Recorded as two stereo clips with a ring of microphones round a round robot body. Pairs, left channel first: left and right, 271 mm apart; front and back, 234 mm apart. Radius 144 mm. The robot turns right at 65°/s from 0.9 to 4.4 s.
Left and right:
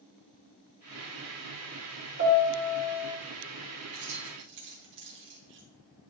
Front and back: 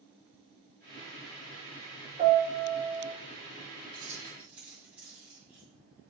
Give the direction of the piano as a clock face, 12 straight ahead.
4 o'clock.